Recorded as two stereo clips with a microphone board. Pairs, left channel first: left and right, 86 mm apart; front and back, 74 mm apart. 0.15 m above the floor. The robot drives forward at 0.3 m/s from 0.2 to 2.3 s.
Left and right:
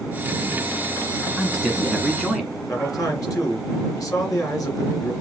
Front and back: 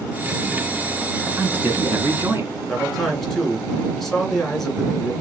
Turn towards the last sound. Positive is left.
turn(degrees=85)